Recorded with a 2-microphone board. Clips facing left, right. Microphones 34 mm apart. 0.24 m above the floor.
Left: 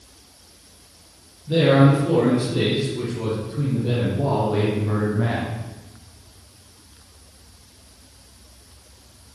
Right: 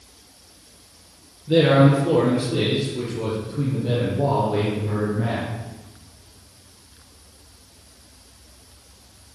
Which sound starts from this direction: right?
A man speaking, at 1.5 s.